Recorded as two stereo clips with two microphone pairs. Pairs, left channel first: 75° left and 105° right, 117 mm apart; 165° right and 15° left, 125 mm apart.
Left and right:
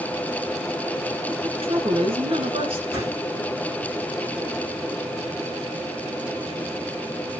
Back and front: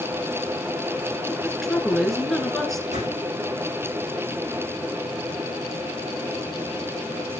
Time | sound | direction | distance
1.3 | a woman speaking | 80° right | 2.5 m
2.9 | a whoosh | straight ahead | 9 m